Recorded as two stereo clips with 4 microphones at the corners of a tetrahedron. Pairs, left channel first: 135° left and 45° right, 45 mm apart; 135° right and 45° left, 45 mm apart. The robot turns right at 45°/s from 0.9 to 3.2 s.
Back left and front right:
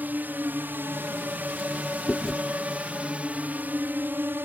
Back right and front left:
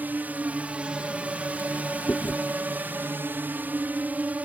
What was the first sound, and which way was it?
A drone, straight ahead.